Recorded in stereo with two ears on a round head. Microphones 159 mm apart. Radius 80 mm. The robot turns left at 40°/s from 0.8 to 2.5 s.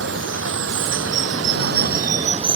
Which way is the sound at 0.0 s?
80° right.